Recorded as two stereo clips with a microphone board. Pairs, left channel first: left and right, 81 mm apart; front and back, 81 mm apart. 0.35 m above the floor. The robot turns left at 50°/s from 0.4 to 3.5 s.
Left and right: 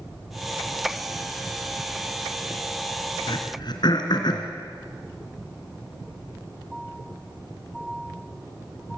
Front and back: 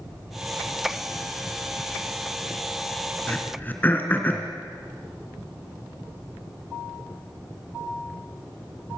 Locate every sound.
3.3 s throat clearing: 75° left, 2.5 m; by 4.5 s 65° left, 2.5 m